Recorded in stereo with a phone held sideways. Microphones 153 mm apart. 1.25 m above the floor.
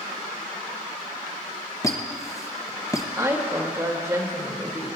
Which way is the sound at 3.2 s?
20° right (ahead or behind).